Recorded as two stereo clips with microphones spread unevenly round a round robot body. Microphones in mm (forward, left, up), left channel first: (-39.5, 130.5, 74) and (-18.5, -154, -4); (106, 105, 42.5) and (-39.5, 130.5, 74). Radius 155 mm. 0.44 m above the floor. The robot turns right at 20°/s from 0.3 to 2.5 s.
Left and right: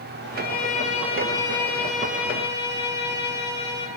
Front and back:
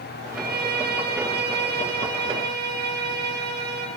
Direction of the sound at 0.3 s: 155° left.